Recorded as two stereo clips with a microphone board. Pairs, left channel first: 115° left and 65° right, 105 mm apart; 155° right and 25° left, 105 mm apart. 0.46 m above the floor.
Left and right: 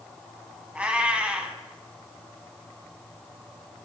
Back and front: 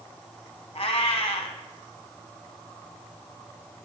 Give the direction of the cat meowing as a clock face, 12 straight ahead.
5 o'clock.